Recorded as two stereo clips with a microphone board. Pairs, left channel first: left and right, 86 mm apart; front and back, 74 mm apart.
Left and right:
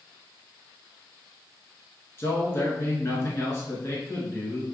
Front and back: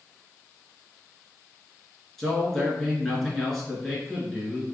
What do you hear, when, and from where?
2.2 s a man speaking: 80° left, 1.2 m